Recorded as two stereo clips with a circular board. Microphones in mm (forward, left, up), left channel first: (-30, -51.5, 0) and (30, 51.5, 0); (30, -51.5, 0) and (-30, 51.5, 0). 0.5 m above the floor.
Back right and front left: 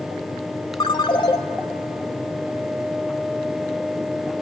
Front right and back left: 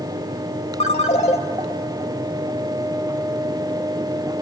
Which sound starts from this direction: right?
A ringtone, at 0.8 s.